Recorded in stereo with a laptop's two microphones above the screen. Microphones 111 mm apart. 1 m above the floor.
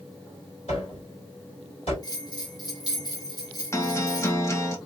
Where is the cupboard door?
60° left (ahead or behind), 2.5 m.